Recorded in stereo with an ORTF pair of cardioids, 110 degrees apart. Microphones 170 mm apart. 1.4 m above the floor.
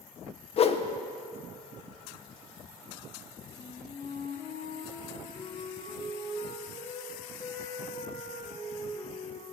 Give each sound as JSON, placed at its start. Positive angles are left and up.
{"t": 0.6, "sound": "a whoosh", "azimuth_deg": 40, "distance_m": 0.6}
{"t": 3.5, "sound": "a flute", "azimuth_deg": 30, "distance_m": 2.5}